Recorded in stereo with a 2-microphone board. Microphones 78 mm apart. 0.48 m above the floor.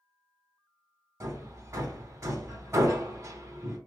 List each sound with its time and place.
1.2 s hammering: 45° right (ahead or behind), 2.5 m